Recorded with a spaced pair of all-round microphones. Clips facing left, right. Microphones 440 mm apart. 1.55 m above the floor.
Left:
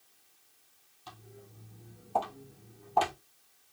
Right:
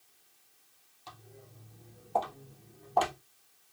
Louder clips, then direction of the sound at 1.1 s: Left 2 dB; 30° left (ahead or behind).